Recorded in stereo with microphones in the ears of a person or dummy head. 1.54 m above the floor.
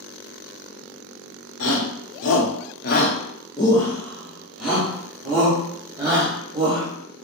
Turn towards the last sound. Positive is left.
turn(degrees=-20)  # may be behind; listen again after turning